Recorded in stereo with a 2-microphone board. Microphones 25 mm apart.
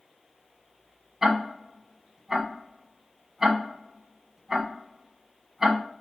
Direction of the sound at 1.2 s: 10° right (ahead or behind).